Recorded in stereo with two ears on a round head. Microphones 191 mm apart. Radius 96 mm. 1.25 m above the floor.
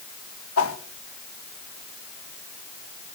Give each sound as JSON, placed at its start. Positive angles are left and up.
{"t": 0.6, "sound": "a whoosh", "side_deg": 70, "distance_m": 1.6}